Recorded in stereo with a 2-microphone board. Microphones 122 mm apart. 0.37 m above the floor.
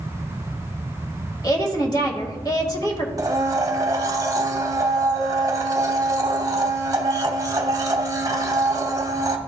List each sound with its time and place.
1.4 s a woman speaking: 30° left (ahead or behind), 1.6 m
3.2 s a blender: 30° right (ahead or behind), 0.9 m